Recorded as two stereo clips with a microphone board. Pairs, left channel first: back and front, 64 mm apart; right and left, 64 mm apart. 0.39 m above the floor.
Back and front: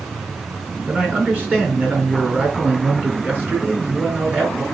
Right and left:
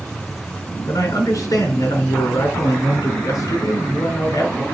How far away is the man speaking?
About 4 m.